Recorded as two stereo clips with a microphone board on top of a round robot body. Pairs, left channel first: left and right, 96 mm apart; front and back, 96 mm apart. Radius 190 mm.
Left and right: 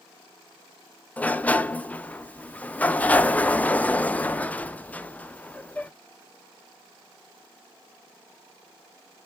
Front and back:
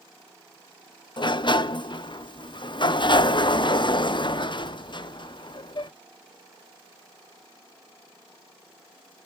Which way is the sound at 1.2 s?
15° left.